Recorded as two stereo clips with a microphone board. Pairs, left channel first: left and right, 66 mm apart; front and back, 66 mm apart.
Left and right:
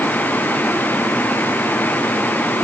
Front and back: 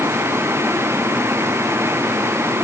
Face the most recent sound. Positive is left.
No sound to turn to.